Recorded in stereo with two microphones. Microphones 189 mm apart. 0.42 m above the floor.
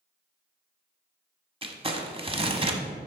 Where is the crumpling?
30° right (ahead or behind), 0.7 m.